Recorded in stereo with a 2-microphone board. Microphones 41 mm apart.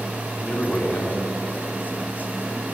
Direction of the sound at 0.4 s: 50° left (ahead or behind).